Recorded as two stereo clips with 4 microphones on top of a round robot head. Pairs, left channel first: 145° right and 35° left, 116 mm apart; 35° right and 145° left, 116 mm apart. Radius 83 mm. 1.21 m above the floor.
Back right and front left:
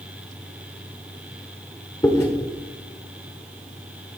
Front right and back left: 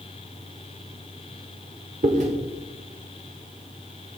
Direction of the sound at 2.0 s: 155° left.